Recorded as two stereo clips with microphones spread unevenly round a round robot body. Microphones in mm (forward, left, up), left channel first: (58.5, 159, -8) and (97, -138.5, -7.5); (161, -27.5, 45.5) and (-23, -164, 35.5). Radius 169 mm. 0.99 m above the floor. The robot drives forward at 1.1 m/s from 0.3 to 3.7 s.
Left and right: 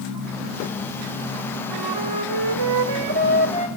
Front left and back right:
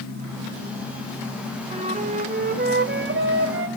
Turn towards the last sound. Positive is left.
turn(degrees=-115)